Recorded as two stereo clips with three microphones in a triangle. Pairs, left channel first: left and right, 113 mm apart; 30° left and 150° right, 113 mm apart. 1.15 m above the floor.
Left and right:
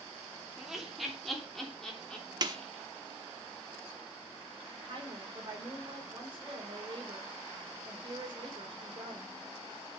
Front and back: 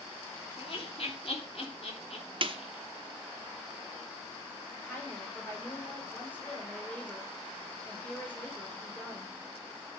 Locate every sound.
0.6 s laughter: straight ahead, 2.5 m; by 2.8 s 10° left, 3.5 m
2.4 s a snare drum: 130° right, 0.9 m
4.7 s a woman speaking: 45° right, 4.5 m